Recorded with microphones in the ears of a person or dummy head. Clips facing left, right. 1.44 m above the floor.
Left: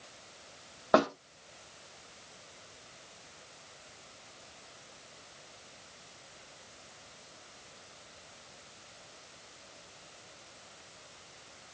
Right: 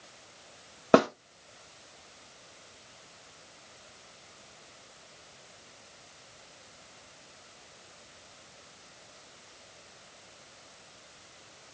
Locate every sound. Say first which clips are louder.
0.9 s a snare drum: right 4 dB; 35° right (ahead or behind), 0.7 m